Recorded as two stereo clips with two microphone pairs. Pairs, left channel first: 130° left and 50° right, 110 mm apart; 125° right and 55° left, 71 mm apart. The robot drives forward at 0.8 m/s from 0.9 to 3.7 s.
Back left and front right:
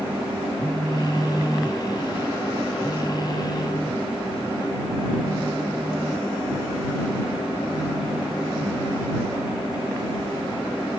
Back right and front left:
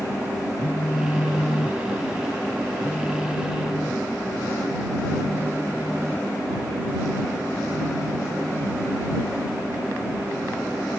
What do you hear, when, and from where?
0.6 s a phone buzzing: 115° right; by 8.9 s 165° right